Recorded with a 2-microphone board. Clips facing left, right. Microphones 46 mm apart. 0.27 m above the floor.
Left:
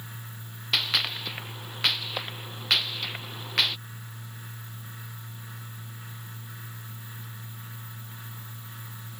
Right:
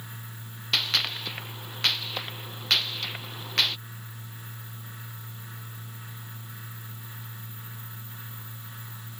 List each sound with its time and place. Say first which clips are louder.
0.7 s a gunshot: even; 10° left (ahead or behind)